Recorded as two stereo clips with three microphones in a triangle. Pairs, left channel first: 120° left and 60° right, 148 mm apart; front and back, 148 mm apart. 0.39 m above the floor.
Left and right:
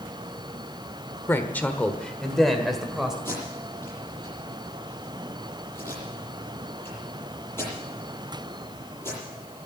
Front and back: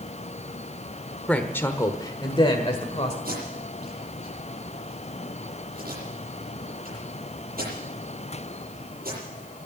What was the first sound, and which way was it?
A woman speaking, 70° left.